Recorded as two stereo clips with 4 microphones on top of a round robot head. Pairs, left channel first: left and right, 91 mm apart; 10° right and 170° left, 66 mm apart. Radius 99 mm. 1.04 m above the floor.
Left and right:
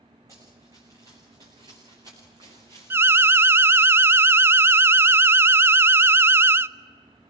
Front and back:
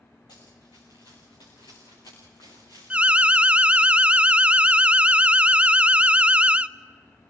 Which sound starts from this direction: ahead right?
Running footsteps, at 0.3 s.